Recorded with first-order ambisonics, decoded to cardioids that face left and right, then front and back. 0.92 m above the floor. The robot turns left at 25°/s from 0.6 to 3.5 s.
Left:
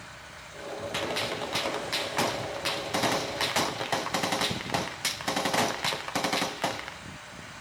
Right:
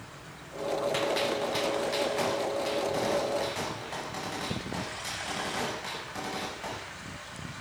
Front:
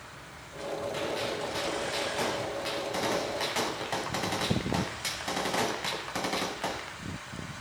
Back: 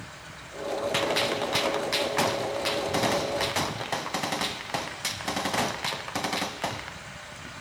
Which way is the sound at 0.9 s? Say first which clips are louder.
Right 2 dB, back 9 dB; 175° left.